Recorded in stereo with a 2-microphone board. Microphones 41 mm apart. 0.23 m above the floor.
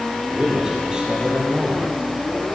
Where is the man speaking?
10° right (ahead or behind), 7 m; by 2.5 s 35° right (ahead or behind), 5.5 m.